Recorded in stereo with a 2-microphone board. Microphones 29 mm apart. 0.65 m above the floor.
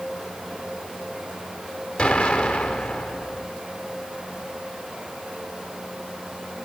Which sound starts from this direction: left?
An explosion, at 2.0 s.